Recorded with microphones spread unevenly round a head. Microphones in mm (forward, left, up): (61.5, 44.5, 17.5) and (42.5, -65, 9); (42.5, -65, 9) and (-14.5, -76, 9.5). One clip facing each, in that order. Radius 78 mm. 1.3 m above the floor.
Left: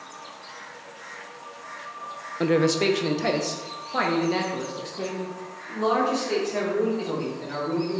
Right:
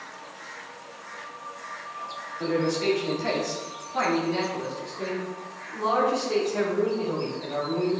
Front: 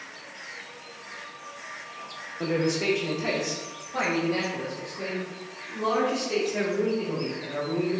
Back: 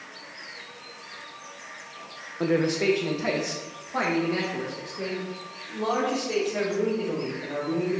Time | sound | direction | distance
2.4 | a man speaking | 125° left | 0.5 m